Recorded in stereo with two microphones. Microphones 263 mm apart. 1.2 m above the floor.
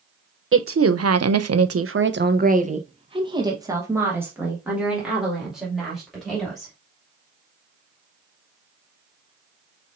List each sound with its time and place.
0.5 s a woman speaking: 55° right (ahead or behind), 0.7 m; by 6.7 s centre (ahead or behind), 2.5 m